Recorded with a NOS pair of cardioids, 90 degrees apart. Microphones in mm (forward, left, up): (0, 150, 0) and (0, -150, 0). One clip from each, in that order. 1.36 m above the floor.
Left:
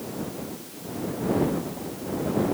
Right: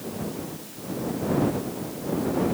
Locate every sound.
Only background noise.